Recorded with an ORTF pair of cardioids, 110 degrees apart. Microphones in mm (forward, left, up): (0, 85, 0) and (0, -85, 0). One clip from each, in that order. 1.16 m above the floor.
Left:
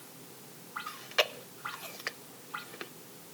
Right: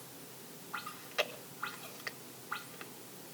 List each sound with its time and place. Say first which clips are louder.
0.9 s chewing: left 7 dB; 35° left, 1.0 m